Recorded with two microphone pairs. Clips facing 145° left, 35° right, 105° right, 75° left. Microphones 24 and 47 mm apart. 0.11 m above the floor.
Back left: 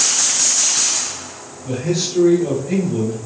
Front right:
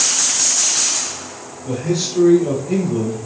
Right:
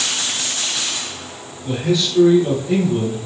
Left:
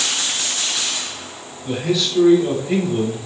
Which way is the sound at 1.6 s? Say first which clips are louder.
Even, right 1 dB; 175° left.